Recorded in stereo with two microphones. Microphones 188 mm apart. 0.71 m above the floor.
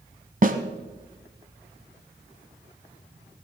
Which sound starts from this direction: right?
A snare drum, at 0.4 s.